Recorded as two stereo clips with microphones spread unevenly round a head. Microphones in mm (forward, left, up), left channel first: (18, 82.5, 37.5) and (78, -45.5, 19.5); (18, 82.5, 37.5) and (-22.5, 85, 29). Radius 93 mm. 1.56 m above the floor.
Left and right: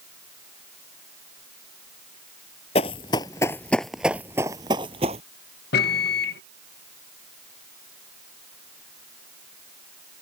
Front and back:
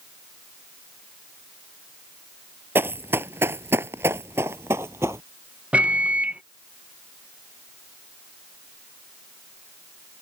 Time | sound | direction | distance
2.8 | running footsteps | 155° left | ?
5.7 | a microwave | 120° left | ?